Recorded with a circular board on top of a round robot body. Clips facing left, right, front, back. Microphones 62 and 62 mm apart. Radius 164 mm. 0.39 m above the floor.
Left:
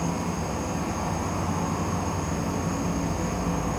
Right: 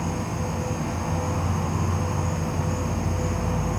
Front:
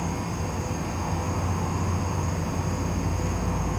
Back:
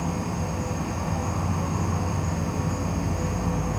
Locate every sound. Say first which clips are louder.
0.0 s an insect: even, back 1 dB; 120° left, 0.8 m